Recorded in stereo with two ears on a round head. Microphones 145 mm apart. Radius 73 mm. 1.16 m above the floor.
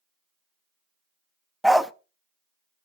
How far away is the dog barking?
About 0.5 m.